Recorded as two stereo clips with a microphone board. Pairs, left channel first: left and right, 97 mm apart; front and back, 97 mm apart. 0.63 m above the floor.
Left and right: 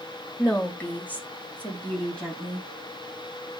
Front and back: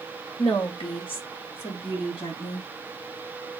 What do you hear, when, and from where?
0.4 s a woman speaking: 30° left, 3 m; by 2.7 s 5° left, 5.5 m